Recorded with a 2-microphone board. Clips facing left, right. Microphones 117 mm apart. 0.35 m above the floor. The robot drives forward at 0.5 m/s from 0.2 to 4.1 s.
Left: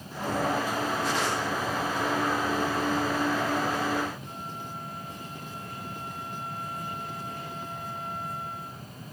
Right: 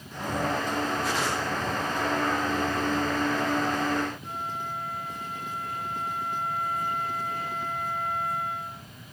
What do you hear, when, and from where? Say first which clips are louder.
4.2 s a flute: right 5 dB; 65° right (ahead or behind), 5.5 m